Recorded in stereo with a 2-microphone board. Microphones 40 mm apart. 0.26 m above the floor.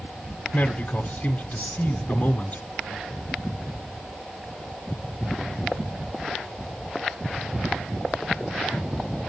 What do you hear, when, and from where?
0.5 s a man speaking: 30° left (ahead or behind), 1.1 m